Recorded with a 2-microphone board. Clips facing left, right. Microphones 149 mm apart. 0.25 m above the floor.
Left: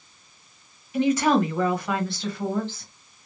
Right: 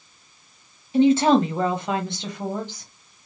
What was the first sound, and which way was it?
A woman speaking, 30° right (ahead or behind).